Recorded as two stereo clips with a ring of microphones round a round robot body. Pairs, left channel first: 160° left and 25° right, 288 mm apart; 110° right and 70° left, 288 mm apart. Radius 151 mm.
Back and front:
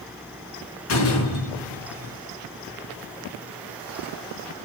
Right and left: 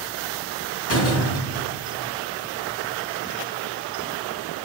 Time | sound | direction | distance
0.9 | a door slam | 160° right | 5 m